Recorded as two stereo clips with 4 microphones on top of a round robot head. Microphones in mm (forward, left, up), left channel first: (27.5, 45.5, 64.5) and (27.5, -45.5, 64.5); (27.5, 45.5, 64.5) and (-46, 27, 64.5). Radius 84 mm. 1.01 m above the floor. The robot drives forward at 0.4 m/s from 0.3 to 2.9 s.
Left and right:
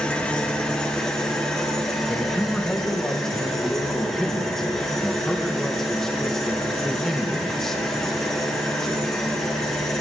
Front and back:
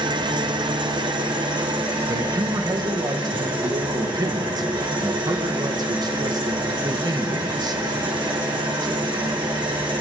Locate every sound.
0.0 s an engine running: 170° left, 0.7 m; by 10.0 s 175° left, 1.7 m
2.1 s a man speaking: 175° left, 0.6 m